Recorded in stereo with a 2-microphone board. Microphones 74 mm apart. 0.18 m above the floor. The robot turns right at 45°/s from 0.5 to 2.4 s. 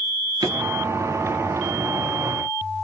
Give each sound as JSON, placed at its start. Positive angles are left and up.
{"t": 0.4, "sound": "a drawer", "side_deg": -70, "distance_m": 1.4}